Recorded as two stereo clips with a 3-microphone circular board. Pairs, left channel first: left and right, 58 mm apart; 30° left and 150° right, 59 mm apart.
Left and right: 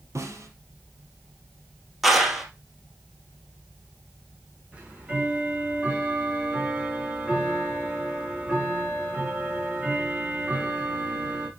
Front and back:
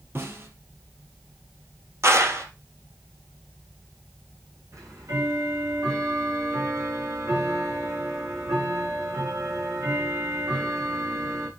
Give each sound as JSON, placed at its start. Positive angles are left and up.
{"t": 0.1, "sound": "a snare drum", "azimuth_deg": -105, "distance_m": 3.5}
{"t": 2.0, "sound": "a clap", "azimuth_deg": 180, "distance_m": 2.5}
{"t": 4.7, "sound": "ticking", "azimuth_deg": -160, "distance_m": 4.5}